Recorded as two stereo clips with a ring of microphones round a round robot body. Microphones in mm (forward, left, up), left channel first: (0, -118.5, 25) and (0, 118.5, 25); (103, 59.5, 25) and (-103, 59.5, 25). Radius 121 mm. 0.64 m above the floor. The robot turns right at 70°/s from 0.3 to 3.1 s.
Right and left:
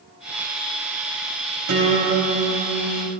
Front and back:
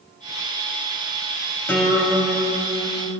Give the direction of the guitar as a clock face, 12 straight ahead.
9 o'clock.